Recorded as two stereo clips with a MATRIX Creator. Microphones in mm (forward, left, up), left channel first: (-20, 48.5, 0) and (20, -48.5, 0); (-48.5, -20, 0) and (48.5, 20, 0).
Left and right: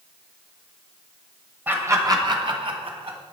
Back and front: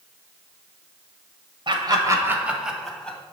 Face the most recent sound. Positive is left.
turn(degrees=-80)